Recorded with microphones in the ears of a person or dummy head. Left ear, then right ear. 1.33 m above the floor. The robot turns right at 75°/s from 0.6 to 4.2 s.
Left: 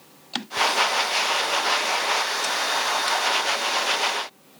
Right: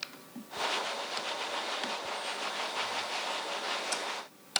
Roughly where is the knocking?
No knocking in this recording.